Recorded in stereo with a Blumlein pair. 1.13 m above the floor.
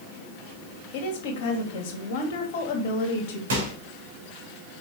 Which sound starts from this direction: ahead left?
A woman speaking, at 0.9 s.